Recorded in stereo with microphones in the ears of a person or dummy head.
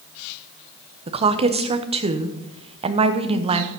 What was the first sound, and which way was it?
A woman speaking, 30° right (ahead or behind).